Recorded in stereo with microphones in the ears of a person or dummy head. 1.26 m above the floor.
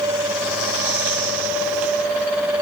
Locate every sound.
Only background noise.